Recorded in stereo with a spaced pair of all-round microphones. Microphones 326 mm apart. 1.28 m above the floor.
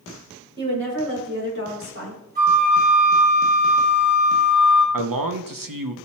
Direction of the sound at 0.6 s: 35° right (ahead or behind).